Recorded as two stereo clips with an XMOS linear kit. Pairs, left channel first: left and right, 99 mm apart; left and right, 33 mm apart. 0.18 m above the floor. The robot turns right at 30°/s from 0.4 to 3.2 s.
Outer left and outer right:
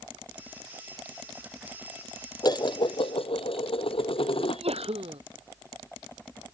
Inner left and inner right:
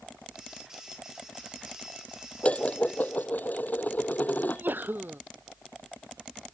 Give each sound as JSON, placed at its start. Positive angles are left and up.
{"t": 2.4, "sound": "dishes clattering", "side_deg": 40}
{"t": 4.4, "sound": "a sneeze", "side_deg": -75}